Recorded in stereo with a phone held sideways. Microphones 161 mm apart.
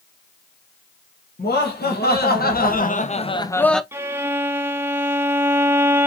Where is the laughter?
90° left, 1.6 m; by 3.8 s centre (ahead or behind), 0.6 m.